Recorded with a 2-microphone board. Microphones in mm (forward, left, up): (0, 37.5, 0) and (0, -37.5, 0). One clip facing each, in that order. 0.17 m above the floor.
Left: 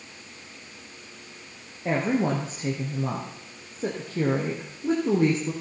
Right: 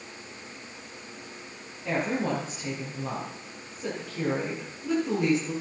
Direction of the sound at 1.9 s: 40° left (ahead or behind).